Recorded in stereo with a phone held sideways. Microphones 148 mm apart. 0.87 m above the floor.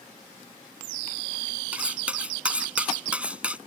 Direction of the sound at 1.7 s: 10° right (ahead or behind).